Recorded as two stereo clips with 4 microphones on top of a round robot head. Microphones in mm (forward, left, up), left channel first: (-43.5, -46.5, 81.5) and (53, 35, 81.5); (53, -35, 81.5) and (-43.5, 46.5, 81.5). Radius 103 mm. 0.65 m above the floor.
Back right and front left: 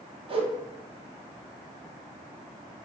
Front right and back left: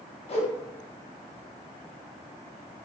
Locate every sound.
0.3 s a whoosh: 5° right, 0.6 m